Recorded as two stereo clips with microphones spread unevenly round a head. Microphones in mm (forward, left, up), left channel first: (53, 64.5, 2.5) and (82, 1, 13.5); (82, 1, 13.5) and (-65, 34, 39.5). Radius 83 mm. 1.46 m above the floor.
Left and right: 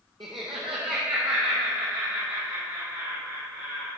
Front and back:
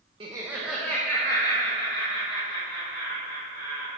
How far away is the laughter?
About 0.8 m.